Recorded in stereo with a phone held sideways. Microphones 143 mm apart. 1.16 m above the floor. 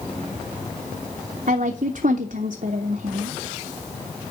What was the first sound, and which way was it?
A woman speaking, 70° right (ahead or behind).